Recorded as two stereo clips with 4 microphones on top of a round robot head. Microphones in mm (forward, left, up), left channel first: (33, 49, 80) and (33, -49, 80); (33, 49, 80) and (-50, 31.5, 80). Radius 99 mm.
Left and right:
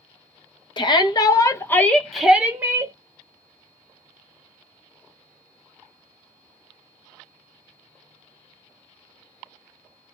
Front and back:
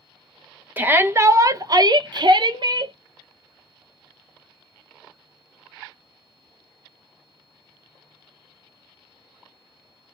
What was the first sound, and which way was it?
A shout, 125° left.